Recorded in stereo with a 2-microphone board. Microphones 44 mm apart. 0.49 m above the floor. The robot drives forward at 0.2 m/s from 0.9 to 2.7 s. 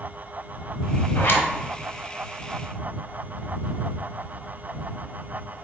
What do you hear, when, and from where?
1.1 s a zipper: 55° left (ahead or behind), 0.9 m; by 1.5 s 60° left (ahead or behind), 0.9 m